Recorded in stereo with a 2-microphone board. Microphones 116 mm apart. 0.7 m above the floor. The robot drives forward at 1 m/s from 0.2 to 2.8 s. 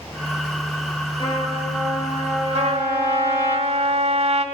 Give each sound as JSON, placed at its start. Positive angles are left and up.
{"t": 1.2, "sound": "a trumpet", "side_deg": 40, "distance_m": 5.0}
{"t": 2.5, "sound": "a trumpet", "side_deg": -65, "distance_m": 1.7}